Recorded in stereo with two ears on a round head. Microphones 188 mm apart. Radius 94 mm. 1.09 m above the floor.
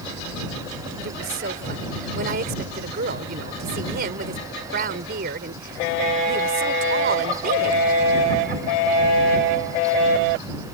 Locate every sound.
1.0 s a woman speaking: 50° right (ahead or behind)